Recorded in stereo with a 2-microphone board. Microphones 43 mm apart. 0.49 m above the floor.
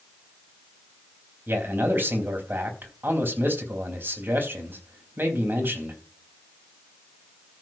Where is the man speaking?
55° right (ahead or behind), 4 m.